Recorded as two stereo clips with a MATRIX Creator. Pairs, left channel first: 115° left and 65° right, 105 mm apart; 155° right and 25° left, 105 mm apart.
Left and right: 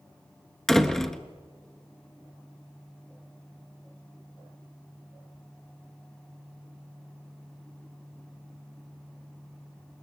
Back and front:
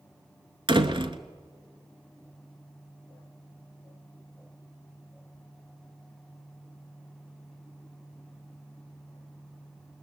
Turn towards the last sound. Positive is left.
turn(degrees=25)